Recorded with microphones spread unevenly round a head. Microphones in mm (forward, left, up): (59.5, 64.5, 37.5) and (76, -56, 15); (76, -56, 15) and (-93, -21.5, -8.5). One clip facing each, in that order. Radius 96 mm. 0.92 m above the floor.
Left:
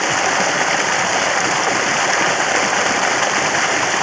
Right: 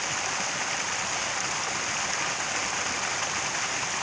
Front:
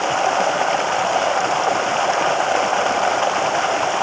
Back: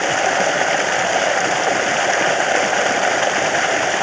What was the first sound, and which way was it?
Running water, 95° left.